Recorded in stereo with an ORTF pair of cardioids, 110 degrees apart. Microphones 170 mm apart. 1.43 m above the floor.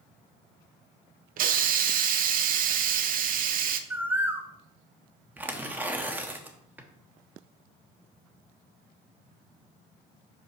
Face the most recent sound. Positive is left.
turn(degrees=-10)